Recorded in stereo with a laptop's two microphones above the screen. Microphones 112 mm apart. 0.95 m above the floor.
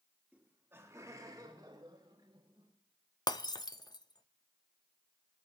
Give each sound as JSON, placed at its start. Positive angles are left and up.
{"t": 0.3, "sound": "laughter", "side_deg": -15, "distance_m": 2.5}
{"t": 3.3, "sound": "breaking glass", "side_deg": 35, "distance_m": 0.6}